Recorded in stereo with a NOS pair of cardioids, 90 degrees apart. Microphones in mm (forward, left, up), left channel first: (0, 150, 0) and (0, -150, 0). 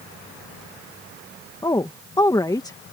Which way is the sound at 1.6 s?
15° left.